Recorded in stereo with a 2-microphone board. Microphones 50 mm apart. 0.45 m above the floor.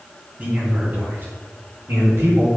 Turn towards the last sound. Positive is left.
turn(degrees=-70)  # may be behind; listen again after turning